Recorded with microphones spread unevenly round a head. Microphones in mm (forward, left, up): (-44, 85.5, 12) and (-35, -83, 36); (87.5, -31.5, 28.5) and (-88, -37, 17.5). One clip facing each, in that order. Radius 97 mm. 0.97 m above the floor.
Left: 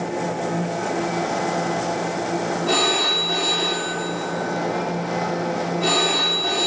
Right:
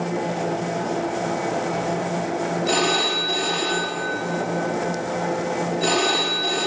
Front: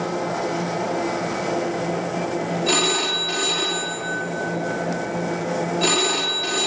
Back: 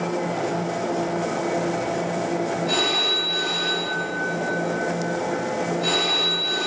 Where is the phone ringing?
10° right, 1.1 m.